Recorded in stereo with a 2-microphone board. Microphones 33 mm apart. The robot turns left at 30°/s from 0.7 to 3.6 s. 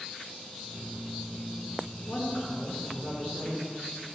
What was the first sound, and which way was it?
A woman speaking, 80° left.